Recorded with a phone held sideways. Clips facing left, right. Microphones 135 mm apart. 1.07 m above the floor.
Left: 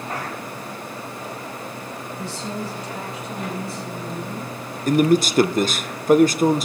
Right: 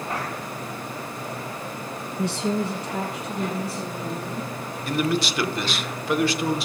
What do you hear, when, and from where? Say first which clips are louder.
2.2 s a woman speaking: right 7 dB; 70° right (ahead or behind), 0.5 m; by 4.5 s 65° right (ahead or behind), 4 m
4.9 s a man speaking: left 8 dB; 45° left (ahead or behind), 0.5 m